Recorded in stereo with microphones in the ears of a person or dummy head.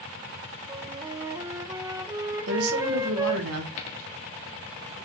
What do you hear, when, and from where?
0.7 s a flute: 20° right (ahead or behind), 1.0 m
2.5 s a woman speaking: 85° right, 2.0 m
3.8 s a dropped coin: 35° left (ahead or behind), 1.2 m